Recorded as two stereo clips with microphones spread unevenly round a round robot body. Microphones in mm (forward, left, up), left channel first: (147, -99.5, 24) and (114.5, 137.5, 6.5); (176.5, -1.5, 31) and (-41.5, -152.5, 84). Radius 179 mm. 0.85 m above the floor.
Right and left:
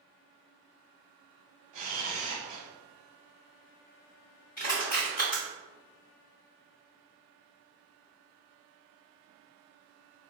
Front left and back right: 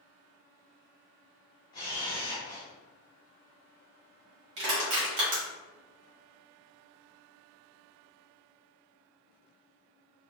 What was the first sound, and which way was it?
A camera shutter, 125° left.